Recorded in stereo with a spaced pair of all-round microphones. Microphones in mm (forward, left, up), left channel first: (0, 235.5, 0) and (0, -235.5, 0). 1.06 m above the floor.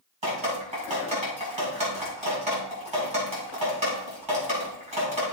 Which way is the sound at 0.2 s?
85° right.